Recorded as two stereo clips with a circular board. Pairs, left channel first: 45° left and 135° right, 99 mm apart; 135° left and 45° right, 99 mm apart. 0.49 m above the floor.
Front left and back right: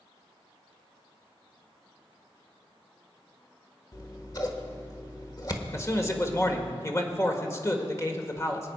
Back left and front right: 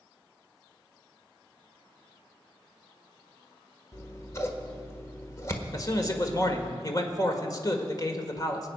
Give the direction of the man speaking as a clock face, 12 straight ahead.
9 o'clock.